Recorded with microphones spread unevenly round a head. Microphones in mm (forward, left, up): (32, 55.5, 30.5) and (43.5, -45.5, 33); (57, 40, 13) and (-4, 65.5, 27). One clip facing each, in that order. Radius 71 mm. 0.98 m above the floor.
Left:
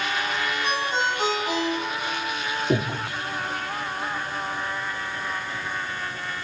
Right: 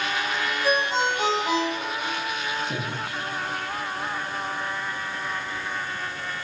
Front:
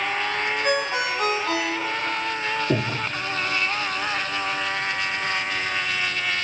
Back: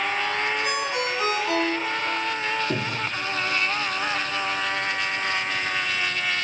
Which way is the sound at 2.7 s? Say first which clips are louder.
Left 7 dB, front 3 dB; 45° left.